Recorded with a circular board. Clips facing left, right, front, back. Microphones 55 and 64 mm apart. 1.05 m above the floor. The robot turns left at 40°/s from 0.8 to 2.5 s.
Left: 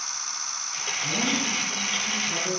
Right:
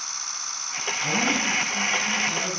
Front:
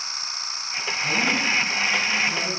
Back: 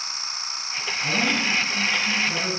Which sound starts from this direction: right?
A man speaking, at 1.0 s.